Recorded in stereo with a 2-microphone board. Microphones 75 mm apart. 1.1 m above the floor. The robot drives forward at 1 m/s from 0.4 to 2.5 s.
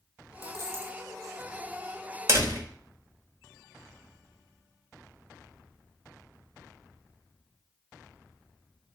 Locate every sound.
0.4 s a dropped coin: 30° right (ahead or behind), 2.5 m; by 1.0 s 40° right (ahead or behind), 2 m
2.3 s a door slam: 40° right (ahead or behind), 3 m